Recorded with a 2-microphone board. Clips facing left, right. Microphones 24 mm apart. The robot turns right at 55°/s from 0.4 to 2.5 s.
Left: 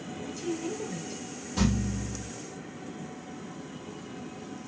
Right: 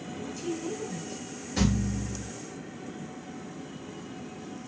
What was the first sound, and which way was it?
A woman speaking, centre (ahead or behind).